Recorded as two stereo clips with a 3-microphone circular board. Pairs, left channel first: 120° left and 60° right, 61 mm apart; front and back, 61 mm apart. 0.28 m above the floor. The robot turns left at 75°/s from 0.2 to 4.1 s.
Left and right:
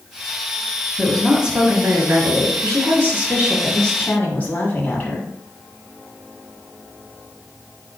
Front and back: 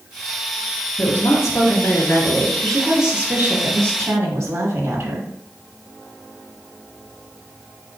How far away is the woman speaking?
About 1.6 m.